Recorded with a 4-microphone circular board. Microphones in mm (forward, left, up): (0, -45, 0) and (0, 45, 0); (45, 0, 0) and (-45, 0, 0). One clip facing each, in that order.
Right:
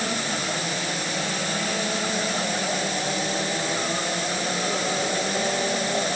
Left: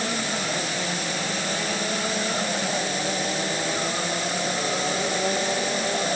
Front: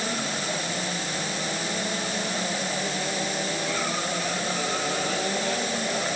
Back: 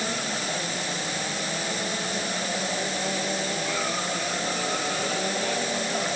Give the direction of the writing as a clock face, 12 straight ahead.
No writing in this recording.